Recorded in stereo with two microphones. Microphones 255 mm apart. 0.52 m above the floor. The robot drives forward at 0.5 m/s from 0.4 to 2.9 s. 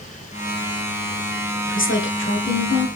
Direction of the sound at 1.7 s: 50° left (ahead or behind).